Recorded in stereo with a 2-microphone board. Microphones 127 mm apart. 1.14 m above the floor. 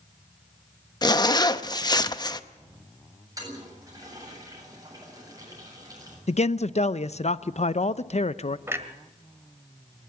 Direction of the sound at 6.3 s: 60° left (ahead or behind).